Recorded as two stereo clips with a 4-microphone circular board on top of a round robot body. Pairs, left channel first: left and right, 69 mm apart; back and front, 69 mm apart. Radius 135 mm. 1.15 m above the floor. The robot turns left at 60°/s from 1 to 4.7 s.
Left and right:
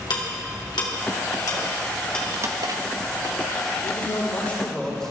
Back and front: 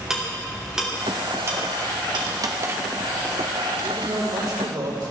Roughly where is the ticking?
Left.